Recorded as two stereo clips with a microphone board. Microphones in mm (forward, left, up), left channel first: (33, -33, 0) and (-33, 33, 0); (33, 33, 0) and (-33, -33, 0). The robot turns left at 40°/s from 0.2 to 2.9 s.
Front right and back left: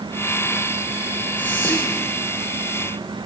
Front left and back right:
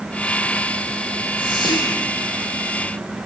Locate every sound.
1.4 s whispering: 30° left, 3 m; by 2.0 s straight ahead, 3 m